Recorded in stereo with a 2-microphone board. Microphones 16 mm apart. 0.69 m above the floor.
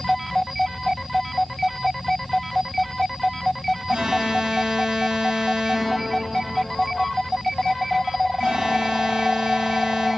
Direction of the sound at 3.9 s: 80° right.